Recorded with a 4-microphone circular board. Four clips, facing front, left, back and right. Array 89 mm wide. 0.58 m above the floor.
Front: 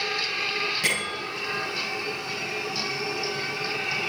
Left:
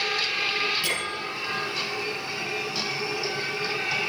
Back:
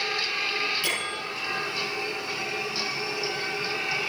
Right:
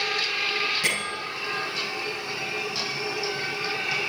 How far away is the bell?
About 8 m.